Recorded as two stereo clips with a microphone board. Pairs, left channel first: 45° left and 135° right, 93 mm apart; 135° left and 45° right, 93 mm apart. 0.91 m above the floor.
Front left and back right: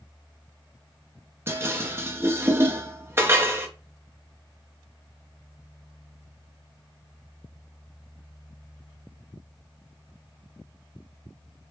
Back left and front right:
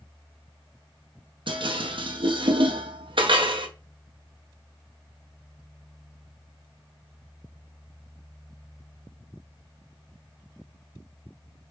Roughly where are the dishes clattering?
Right.